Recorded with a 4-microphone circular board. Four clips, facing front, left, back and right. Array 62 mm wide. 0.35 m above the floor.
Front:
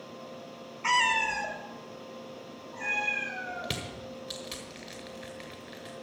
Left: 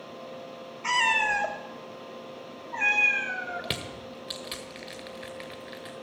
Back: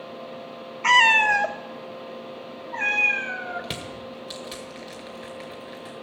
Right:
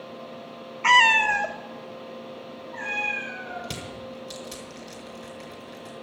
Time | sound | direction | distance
0.8 | a cat meowing | 120° right | 0.5 m
3.6 | crushing | 95° left | 1.3 m